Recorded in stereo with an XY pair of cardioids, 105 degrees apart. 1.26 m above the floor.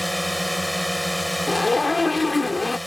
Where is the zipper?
20° left.